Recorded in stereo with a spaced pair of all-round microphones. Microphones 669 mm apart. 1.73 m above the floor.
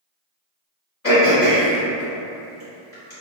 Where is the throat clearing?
20° left (ahead or behind), 1.4 m.